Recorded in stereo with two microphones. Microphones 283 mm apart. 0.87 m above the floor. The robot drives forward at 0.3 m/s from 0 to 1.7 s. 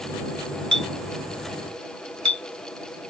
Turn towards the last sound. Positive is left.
turn(degrees=-75)  # may be behind; listen again after turning